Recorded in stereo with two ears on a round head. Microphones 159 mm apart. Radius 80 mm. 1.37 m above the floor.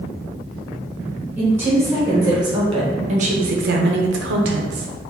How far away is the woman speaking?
About 1.4 m.